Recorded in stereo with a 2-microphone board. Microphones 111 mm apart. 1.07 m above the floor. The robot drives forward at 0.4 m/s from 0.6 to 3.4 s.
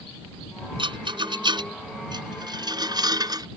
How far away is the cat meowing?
No cat meowing in this recording.